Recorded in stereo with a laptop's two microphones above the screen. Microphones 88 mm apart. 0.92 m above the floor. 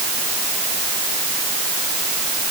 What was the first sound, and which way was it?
Only background noise.